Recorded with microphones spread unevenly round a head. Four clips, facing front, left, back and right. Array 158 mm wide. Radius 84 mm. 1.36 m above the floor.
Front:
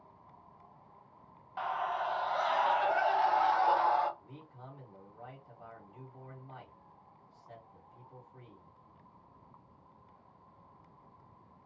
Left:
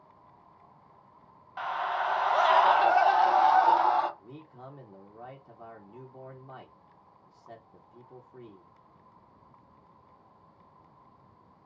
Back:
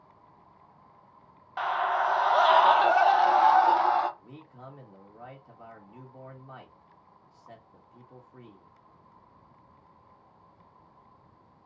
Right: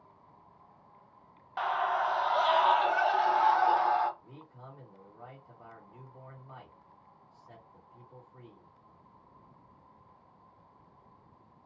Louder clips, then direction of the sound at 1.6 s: Right 1 dB, back 7 dB; 145° right.